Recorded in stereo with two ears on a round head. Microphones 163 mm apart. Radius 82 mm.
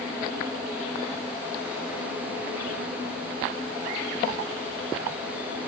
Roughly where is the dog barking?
No dog barking in this recording.